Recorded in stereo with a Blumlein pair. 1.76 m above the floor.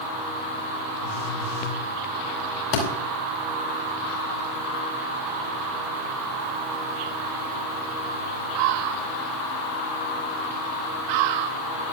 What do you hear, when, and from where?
1.0 s a phone buzzing: 55° left, 4 m
2.7 s a thud: 50° left, 4.5 m